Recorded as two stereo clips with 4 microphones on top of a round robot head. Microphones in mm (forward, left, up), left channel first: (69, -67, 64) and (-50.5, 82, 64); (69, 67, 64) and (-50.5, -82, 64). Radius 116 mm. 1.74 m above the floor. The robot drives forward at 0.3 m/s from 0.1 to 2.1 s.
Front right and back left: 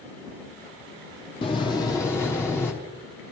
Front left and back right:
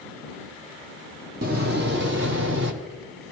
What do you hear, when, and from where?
1.4 s a door slam: 105° right, 0.8 m; by 2.7 s 125° right, 0.8 m